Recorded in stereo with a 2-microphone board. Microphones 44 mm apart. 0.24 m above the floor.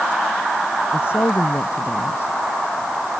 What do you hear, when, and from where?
0.9 s a woman speaking: 60° left (ahead or behind)